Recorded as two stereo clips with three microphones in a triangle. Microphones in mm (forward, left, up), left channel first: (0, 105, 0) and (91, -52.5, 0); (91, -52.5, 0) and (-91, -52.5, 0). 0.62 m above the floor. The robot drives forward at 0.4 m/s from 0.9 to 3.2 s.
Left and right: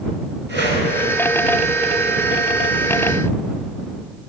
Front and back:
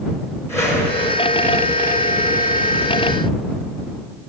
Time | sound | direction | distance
0.5 | a whoosh | 75° right | 5 m